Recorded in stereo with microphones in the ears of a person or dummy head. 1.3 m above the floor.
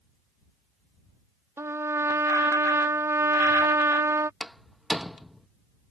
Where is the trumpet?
15° right (ahead or behind).